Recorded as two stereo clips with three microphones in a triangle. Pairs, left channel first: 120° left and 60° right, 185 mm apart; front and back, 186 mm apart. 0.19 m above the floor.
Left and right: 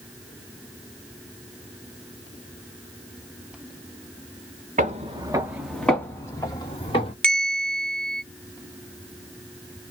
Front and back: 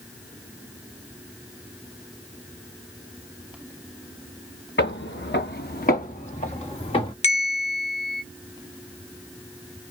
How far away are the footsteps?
About 0.9 m.